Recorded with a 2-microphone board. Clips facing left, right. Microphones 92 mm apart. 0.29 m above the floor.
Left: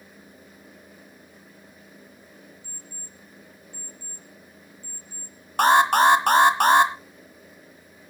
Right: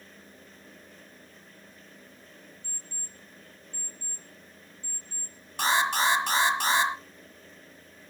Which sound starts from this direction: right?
An alarm clock, at 2.6 s.